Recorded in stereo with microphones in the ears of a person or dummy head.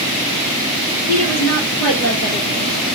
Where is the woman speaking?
80° left, 2.5 m.